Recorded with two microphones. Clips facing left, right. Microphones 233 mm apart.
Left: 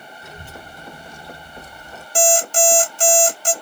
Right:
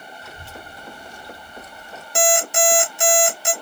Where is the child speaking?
15° left (ahead or behind), 1.1 m; by 2.0 s 35° left (ahead or behind), 0.5 m.